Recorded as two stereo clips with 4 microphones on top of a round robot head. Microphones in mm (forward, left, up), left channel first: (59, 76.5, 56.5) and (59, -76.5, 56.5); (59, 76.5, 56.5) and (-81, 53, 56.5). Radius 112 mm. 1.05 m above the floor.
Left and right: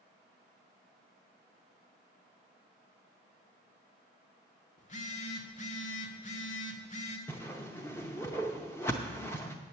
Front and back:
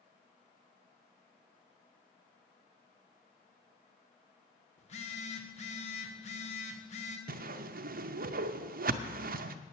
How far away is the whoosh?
About 0.6 m.